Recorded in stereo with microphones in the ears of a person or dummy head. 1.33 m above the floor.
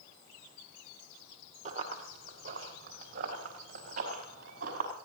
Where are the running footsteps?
40° right (ahead or behind), 2.5 m; by 4.9 s 55° right (ahead or behind), 5.5 m.